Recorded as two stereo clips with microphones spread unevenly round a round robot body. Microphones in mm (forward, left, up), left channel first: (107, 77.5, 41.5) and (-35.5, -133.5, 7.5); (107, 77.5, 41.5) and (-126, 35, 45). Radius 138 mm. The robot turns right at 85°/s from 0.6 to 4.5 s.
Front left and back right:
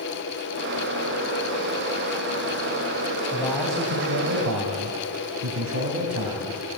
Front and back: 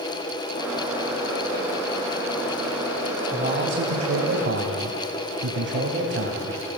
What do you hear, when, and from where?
3.3 s a man speaking: 125° left, 2 m; by 6.6 s 130° right, 2 m